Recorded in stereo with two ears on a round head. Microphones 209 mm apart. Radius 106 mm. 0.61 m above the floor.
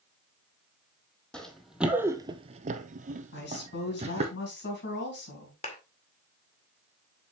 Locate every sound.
1.3 s running footsteps: 5° left (ahead or behind), 1.2 m; by 4.3 s 30° right (ahead or behind), 1.8 m
3.3 s a woman speaking: 55° left (ahead or behind), 4 m
5.6 s a clap: 30° left (ahead or behind), 1.9 m